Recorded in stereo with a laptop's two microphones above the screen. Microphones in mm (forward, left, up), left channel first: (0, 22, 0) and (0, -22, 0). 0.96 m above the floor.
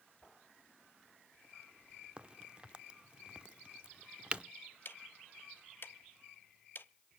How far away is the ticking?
About 0.6 m.